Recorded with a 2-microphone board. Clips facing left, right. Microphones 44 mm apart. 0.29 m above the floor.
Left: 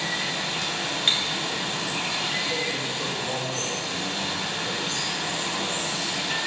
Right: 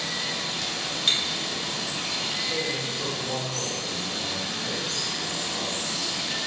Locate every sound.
0.0 s running water: 50° left (ahead or behind), 0.7 m
1.1 s breaking glass: 30° left (ahead or behind), 1.4 m
2.5 s a man speaking: 15° left (ahead or behind), 1.4 m